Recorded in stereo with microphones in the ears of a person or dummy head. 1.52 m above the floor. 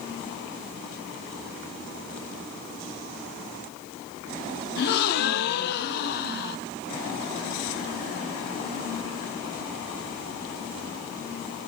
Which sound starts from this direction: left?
A gasp, at 4.8 s.